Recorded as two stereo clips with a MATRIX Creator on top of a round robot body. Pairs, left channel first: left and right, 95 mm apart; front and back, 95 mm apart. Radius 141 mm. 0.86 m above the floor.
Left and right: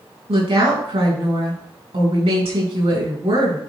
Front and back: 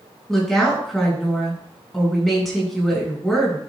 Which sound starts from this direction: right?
A woman speaking, at 0.3 s.